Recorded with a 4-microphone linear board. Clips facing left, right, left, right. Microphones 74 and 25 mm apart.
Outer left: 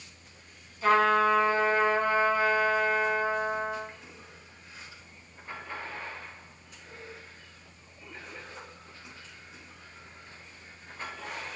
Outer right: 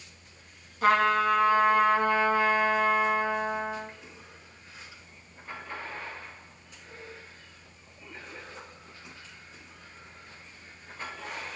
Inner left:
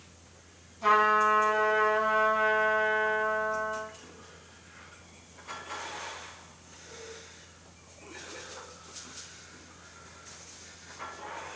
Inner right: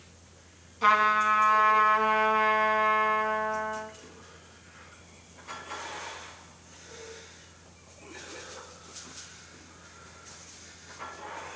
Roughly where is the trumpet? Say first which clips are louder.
Even, inner right 1 dB; right.